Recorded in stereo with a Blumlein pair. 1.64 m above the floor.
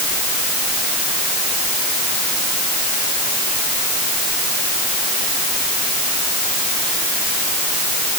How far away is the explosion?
No explosion in this recording.